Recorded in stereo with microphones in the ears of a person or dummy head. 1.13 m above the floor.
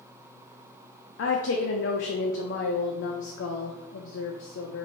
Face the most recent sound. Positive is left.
turn(degrees=70)  # may be behind; listen again after turning